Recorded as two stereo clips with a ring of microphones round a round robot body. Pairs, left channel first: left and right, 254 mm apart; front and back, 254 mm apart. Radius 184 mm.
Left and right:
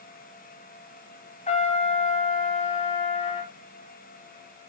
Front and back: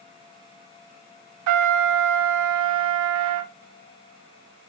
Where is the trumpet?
160° left, 0.8 m.